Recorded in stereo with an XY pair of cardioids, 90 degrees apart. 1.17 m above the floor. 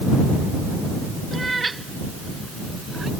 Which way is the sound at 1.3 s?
20° right.